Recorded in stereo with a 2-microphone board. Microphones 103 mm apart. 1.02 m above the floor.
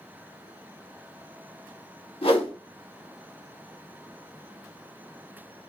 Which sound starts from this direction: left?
A whoosh, at 2.2 s.